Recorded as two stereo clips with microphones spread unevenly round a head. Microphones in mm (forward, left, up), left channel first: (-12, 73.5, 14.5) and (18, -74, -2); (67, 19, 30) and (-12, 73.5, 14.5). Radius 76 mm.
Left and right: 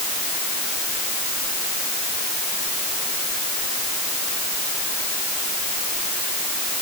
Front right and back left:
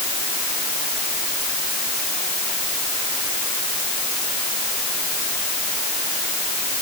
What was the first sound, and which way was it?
Only background noise.